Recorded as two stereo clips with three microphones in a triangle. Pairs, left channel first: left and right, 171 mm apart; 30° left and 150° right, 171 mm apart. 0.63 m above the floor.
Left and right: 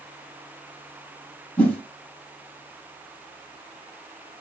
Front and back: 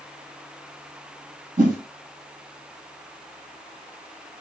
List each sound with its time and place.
1.6 s a whoosh: 170° left, 4 m